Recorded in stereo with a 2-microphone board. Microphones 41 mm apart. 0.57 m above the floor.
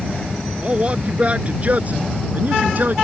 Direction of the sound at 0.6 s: 30° right (ahead or behind).